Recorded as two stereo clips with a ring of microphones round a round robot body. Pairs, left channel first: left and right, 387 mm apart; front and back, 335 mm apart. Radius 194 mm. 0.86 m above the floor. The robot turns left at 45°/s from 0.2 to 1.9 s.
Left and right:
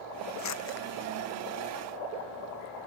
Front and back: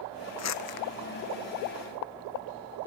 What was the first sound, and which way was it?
Crumpling, 45° left.